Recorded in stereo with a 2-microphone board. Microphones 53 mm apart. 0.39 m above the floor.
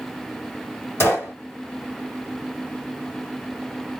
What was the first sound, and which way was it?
A gunshot, 50° left (ahead or behind).